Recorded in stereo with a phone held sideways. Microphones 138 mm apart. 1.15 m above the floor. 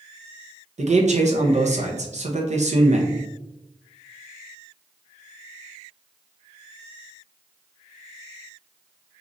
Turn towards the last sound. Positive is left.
turn(degrees=-55)  # may be behind; listen again after turning